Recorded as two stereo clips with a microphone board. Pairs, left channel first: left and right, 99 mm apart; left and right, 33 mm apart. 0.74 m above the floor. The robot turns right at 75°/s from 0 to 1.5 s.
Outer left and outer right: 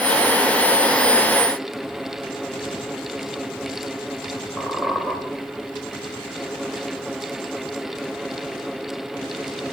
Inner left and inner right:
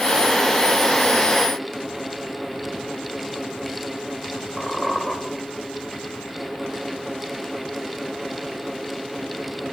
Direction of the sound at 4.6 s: 5° right (ahead or behind).